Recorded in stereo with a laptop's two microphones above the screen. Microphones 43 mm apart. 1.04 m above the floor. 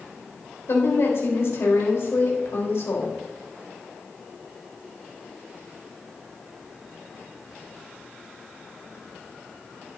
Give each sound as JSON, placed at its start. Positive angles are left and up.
{"t": 0.7, "sound": "a woman speaking", "side_deg": 65, "distance_m": 5.0}